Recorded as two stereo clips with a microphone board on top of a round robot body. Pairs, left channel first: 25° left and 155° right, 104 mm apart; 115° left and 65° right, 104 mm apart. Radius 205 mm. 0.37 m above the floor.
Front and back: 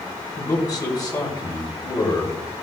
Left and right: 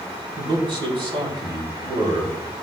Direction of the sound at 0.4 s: 30° right.